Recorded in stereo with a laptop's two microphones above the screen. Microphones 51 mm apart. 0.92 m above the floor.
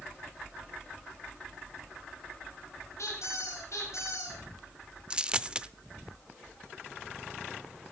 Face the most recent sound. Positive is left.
turn(degrees=-20)  # may be behind; listen again after turning